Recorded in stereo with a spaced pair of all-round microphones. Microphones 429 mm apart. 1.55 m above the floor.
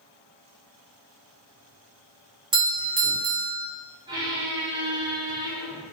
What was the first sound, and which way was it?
A doorbell, 55° right (ahead or behind).